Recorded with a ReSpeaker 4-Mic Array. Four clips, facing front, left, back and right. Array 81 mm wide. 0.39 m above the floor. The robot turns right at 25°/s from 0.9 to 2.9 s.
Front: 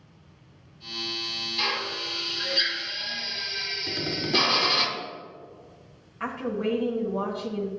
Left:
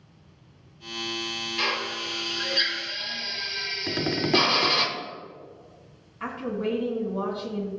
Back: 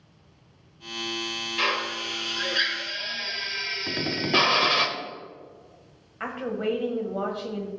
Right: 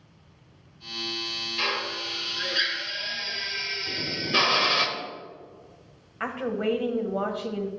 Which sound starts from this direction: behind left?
Tapping, at 3.9 s.